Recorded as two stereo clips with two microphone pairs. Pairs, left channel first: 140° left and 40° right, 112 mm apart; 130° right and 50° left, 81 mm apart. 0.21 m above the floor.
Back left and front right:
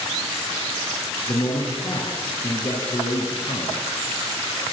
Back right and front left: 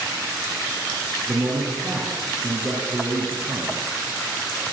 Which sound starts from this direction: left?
A man speaking, at 1.3 s.